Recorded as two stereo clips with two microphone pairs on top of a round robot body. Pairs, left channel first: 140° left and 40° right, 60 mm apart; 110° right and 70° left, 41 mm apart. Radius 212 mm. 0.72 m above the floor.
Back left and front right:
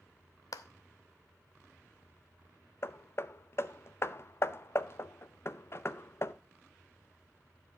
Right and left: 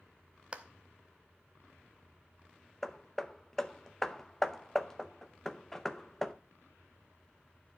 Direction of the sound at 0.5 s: 130° left.